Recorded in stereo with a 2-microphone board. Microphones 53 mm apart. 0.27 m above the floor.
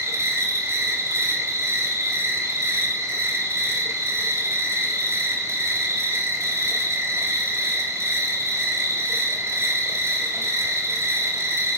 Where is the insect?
60° right (ahead or behind), 0.8 m.